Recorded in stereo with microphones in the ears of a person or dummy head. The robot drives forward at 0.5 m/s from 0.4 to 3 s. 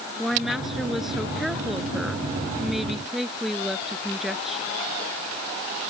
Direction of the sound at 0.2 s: 5° right (ahead or behind).